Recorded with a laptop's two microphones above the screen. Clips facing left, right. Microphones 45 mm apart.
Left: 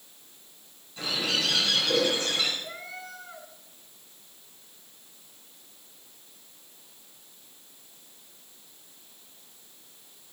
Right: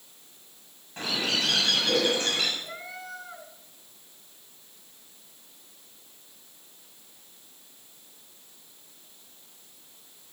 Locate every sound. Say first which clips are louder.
1.0 s a bird: even; 50° right (ahead or behind), 6.5 m
2.6 s a cat meowing: even; 5° right (ahead or behind), 5 m